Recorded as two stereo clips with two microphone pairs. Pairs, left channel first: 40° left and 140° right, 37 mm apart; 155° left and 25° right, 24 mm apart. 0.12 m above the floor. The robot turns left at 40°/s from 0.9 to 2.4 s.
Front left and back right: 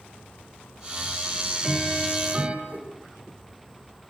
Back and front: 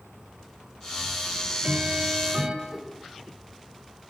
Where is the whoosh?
105° right, 6 m.